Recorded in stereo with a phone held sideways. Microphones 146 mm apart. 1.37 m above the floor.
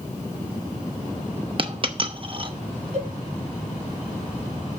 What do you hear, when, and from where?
1.6 s a dropped coin: 40° right (ahead or behind), 0.7 m
2.9 s a cowbell: 55° right (ahead or behind), 5.5 m